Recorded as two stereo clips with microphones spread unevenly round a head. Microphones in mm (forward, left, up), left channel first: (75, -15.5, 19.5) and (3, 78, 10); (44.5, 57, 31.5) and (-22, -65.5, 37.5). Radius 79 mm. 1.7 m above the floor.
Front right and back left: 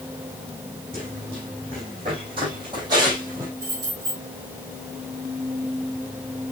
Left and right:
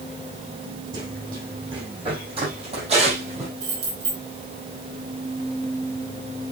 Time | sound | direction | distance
0.9 | running footsteps | straight behind | 6 m
3.6 | keys jangling | 160° right | 5.5 m